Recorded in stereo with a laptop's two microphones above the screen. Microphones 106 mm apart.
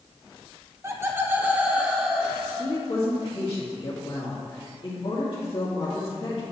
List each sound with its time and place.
0.8 s laughter: 25° right (ahead or behind), 1.1 m; by 2.8 s centre (ahead or behind), 1.8 m
2.6 s a woman speaking: 55° left (ahead or behind), 1.8 m